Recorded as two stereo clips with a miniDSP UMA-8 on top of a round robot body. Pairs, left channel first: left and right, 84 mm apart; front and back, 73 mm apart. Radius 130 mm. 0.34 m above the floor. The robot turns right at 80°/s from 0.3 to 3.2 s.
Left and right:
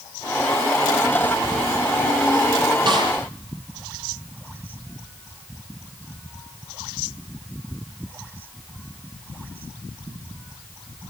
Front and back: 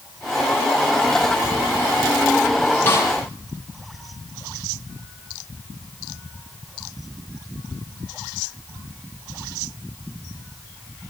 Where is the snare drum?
60° right, 8 m; by 3.1 s 40° right, 8 m.